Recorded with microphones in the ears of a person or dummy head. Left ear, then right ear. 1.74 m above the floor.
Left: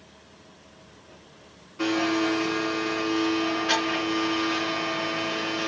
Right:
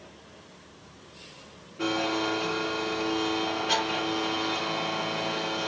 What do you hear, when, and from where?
1.8 s a blender: 30° left (ahead or behind), 2.5 m